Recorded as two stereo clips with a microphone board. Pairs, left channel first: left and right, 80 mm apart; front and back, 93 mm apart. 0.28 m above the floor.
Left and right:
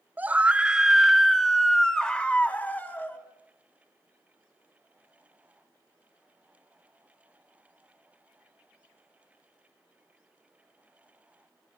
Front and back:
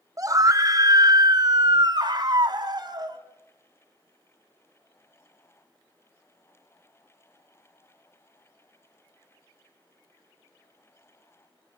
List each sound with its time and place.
0.2 s a scream: 150° right, 1.5 m; by 3.2 s 150° left, 2 m